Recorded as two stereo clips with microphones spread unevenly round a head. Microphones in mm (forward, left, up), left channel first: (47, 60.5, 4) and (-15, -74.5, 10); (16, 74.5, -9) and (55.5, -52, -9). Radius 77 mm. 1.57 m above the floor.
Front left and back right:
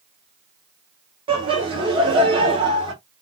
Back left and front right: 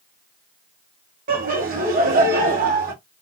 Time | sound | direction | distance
1.3 | laughter | 60° right | 2 m